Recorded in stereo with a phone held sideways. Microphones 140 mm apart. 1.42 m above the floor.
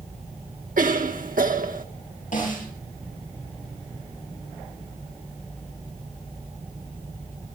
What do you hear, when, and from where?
0.8 s a cough: 80° right, 1.4 m
2.3 s a snare drum: 70° left (ahead or behind), 9 m